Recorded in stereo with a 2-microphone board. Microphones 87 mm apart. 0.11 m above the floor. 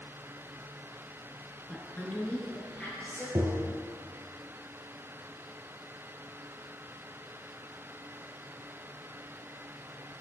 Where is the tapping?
40° right (ahead or behind), 0.9 m.